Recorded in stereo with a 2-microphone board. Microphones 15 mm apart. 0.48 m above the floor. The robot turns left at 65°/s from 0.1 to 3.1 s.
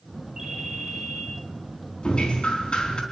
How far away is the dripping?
About 4 m.